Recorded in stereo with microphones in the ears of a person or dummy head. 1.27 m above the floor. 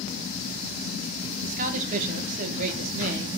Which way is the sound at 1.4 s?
45° right (ahead or behind).